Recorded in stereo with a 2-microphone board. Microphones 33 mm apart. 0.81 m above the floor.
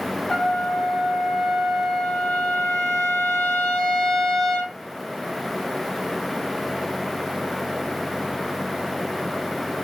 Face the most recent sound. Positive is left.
turn(degrees=10)  # may be behind; listen again after turning